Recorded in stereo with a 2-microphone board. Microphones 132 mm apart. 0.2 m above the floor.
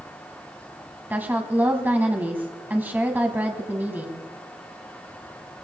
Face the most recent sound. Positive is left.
turn(degrees=-15)  # may be behind; listen again after turning